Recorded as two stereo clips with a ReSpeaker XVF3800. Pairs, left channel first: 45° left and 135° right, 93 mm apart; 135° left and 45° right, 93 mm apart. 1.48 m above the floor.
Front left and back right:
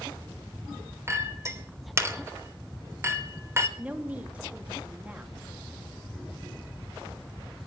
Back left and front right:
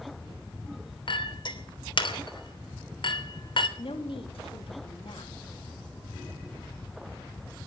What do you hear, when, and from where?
1.1 s a clink: 165° left, 3.5 m
3.8 s a woman speaking: 150° left, 2.5 m